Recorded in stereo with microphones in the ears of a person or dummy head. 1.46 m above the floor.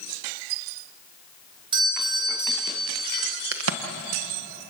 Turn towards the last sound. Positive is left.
turn(degrees=-85)